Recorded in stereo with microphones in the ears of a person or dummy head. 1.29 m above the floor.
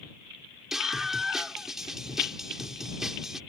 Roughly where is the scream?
Centre.